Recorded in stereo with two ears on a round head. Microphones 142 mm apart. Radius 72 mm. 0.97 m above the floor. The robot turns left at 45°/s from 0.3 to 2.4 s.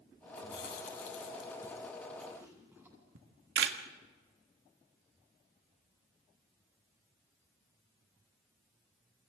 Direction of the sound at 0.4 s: 80° left.